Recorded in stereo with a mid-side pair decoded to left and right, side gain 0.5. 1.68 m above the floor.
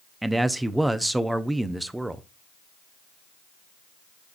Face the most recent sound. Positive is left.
turn(degrees=-10)